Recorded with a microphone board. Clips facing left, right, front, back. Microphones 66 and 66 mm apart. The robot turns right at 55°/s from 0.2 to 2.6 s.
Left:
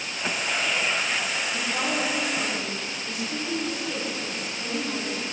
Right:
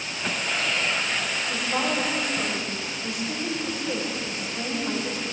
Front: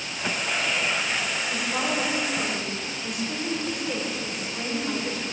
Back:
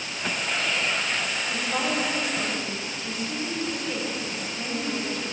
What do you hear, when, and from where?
1.5 s a woman speaking: 140° right, 5 m; by 5.2 s 80° right, 5 m